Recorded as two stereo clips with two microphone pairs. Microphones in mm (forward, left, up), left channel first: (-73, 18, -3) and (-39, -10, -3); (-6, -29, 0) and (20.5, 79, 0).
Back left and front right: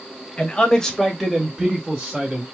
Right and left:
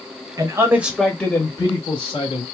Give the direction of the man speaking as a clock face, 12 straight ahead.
9 o'clock.